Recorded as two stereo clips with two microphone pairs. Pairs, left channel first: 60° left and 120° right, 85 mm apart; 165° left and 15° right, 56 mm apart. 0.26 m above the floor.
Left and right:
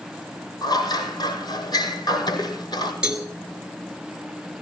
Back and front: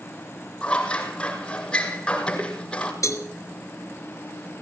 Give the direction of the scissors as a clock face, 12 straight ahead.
9 o'clock.